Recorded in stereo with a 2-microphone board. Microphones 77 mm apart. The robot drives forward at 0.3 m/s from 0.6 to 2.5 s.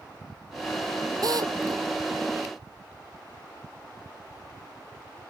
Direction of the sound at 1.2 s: 55° right (ahead or behind).